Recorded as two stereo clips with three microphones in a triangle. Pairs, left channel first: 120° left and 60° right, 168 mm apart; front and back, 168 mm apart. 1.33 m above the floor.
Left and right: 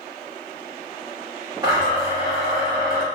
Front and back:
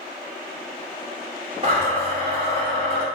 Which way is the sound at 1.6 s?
125° right.